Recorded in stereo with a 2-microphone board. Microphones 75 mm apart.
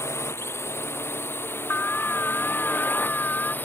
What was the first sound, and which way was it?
A drone, 35° left (ahead or behind).